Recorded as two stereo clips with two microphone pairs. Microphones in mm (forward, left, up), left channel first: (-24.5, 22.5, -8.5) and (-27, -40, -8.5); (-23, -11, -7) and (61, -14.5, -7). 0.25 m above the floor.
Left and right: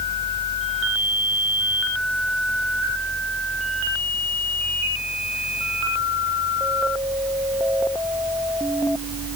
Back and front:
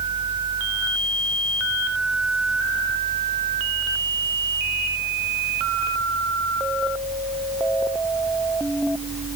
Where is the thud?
No thud in this recording.